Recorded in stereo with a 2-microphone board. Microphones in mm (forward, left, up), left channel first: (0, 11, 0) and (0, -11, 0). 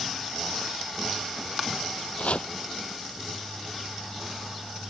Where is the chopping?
70° left (ahead or behind).